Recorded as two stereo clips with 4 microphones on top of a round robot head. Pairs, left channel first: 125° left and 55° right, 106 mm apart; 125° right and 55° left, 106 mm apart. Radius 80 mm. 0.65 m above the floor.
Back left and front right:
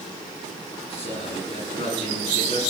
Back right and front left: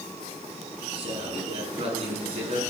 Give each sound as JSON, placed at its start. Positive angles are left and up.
{"t": 0.9, "sound": "a man speaking", "azimuth_deg": 90, "distance_m": 6.5}